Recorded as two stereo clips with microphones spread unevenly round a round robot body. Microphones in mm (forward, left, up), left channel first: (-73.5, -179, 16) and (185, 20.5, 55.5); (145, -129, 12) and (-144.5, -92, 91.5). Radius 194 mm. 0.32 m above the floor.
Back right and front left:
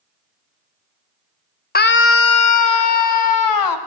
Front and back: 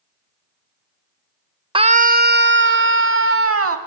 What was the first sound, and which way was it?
A scream, 105° right.